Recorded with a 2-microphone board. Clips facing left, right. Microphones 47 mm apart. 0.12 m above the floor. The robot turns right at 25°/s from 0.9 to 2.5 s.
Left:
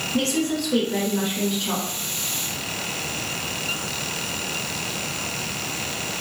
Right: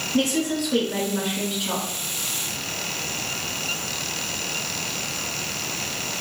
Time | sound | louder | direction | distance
0.1 | a woman speaking | right 1 dB | 15° right (ahead or behind) | 1.2 m